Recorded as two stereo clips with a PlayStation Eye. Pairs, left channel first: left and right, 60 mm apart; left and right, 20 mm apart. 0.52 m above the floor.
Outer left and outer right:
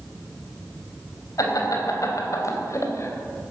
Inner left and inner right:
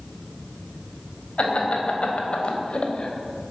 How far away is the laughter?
About 4 m.